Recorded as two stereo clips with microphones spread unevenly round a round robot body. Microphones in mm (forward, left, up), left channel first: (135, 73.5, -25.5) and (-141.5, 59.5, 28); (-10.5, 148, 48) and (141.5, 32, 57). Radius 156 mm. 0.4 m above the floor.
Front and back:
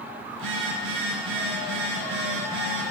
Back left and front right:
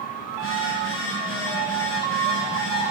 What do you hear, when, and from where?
0.3 s a phone buzzing: 160° left, 1.9 m